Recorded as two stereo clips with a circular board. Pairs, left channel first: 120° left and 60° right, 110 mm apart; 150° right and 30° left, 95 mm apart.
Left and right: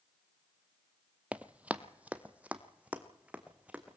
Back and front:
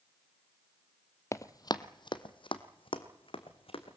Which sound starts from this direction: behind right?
Running footsteps, at 1.3 s.